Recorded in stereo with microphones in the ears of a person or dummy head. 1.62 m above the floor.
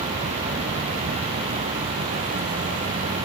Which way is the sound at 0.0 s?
35° right (ahead or behind).